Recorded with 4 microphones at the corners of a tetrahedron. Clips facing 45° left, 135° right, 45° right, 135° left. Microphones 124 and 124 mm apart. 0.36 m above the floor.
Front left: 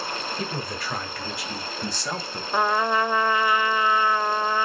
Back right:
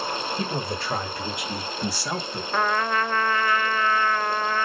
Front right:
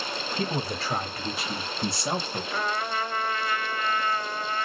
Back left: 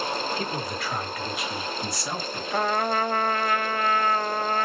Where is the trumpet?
120° left, 0.5 m.